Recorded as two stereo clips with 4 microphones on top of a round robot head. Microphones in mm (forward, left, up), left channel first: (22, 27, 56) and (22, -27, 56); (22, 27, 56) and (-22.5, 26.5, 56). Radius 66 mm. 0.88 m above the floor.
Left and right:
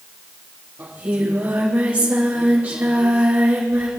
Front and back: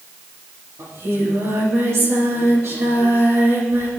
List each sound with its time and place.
0.8 s singing: 155° right, 7.5 m